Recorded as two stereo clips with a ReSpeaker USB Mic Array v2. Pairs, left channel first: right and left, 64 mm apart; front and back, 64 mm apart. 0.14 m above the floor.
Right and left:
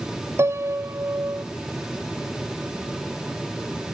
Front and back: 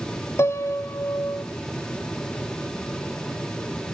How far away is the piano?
About 1.0 m.